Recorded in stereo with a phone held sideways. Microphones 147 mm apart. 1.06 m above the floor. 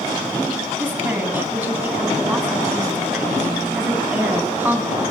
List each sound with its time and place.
0.8 s a woman speaking: 15° right (ahead or behind), 9.5 m